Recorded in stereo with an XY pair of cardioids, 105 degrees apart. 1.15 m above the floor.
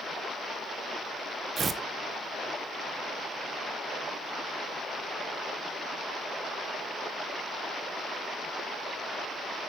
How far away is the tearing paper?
About 0.6 m.